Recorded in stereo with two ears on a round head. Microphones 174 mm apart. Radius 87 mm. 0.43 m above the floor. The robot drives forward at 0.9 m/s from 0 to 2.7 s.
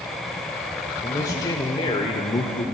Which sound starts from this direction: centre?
A man speaking, at 1.0 s.